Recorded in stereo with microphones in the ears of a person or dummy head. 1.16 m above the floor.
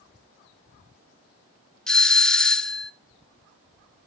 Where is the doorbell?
5° left (ahead or behind), 0.7 m.